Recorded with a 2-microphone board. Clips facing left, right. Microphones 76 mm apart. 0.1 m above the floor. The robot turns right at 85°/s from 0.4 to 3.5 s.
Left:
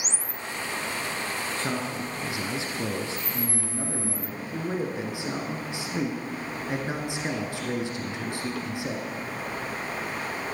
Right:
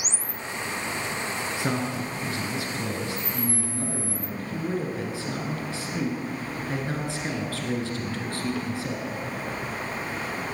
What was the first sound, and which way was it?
A man speaking, 10° right (ahead or behind).